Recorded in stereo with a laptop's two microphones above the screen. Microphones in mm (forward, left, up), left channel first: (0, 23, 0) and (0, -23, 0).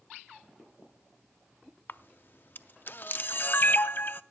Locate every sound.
1.9 s a camera shutter: 50° left (ahead or behind), 0.5 m